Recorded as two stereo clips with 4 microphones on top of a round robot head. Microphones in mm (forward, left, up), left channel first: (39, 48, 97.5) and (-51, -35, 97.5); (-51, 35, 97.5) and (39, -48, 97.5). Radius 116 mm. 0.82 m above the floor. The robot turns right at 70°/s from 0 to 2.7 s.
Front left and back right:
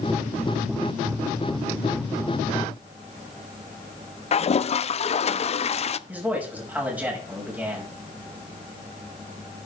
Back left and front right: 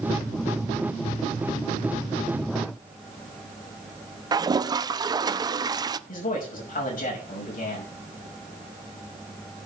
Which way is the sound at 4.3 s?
15° left.